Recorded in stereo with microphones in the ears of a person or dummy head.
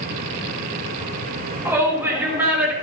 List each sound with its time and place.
1.6 s a shout: 10° right (ahead or behind), 3.5 m; by 2.7 s 5° right (ahead or behind), 4.5 m